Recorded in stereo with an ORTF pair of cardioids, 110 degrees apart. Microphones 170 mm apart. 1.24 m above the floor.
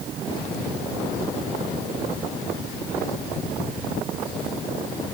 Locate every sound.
Only background noise.